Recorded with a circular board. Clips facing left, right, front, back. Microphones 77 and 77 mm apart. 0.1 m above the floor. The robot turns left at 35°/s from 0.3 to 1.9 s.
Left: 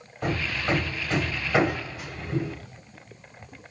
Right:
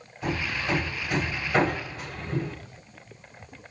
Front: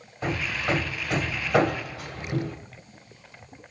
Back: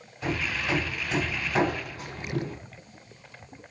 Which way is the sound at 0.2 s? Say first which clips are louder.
Left 2 dB, front 2 dB; 60° left.